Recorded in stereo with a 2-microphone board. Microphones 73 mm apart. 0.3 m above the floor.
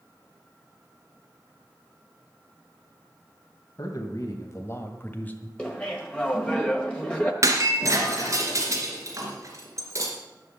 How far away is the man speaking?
About 1.8 m.